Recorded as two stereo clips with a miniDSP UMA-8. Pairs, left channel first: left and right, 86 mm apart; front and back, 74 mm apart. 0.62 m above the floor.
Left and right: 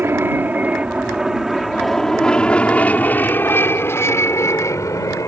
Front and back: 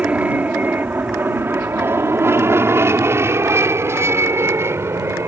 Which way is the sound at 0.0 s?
125° right.